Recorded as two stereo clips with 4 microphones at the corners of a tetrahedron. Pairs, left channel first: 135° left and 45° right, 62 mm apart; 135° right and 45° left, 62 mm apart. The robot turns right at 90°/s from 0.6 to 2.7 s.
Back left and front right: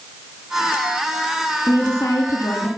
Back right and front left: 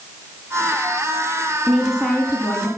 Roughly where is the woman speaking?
Left.